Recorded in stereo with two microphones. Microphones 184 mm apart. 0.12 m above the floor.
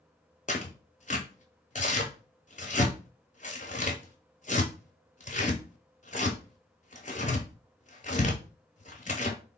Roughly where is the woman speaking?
I don't hear a woman speaking.